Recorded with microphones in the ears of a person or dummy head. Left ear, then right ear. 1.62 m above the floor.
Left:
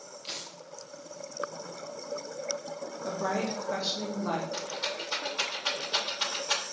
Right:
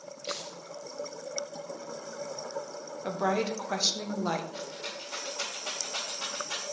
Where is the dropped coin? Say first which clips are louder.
Right 2 dB; 5° right (ahead or behind), 3.5 m.